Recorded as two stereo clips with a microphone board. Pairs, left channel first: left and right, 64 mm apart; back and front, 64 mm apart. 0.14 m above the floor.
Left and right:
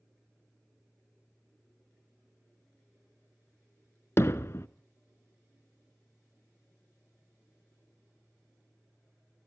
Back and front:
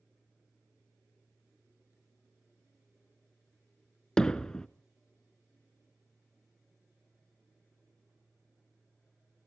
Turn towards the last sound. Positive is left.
turn(degrees=105)